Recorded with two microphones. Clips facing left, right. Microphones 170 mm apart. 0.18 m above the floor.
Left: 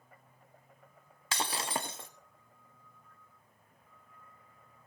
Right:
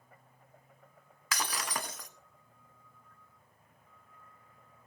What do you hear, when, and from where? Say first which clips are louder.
1.3 s breaking glass: left 2 dB; 30° left (ahead or behind), 1.1 m